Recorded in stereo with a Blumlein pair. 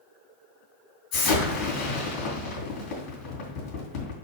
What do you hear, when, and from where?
1.1 s an explosion: 30° left, 3 m